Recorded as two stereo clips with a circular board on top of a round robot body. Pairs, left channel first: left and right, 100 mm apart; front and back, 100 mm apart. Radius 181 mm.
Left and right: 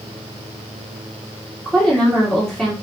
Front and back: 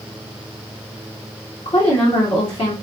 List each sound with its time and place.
1.6 s a woman speaking: 5° left, 1.7 m